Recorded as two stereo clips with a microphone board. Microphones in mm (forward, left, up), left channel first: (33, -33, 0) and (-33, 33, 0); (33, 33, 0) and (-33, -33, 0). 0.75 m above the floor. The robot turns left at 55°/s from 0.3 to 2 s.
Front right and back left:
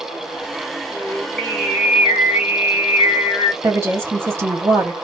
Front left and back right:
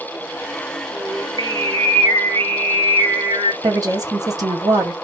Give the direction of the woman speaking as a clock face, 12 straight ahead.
6 o'clock.